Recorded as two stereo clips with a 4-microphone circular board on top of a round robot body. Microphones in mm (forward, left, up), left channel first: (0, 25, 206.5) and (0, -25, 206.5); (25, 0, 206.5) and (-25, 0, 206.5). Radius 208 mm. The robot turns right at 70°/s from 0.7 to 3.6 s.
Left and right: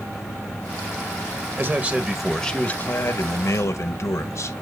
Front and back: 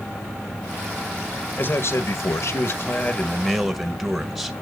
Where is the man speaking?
50° right, 1.3 m; by 4.5 s 95° left, 1.3 m.